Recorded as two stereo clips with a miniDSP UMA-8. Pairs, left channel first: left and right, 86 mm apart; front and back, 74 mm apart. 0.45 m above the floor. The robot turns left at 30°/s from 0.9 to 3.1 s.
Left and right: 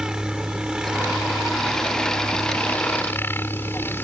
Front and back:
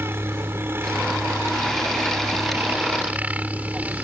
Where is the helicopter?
165° right; by 4.0 s 130° left.